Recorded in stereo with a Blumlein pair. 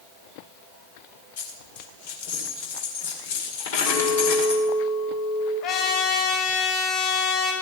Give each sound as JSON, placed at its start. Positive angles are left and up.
{"t": 1.4, "sound": "a dropped coin", "azimuth_deg": 55, "distance_m": 1.8}
{"t": 3.9, "sound": "a clink", "azimuth_deg": 30, "distance_m": 4.0}
{"t": 5.6, "sound": "a trumpet", "azimuth_deg": 40, "distance_m": 4.5}